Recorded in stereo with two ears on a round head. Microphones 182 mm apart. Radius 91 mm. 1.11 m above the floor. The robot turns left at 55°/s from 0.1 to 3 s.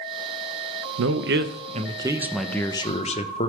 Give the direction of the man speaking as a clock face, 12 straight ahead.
3 o'clock.